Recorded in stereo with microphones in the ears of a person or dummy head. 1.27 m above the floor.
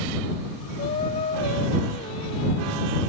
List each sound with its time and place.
0.8 s singing: 20° left (ahead or behind)